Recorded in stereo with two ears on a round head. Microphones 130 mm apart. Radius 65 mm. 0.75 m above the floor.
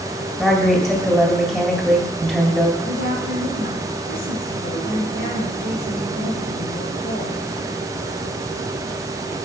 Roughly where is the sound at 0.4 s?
Centre.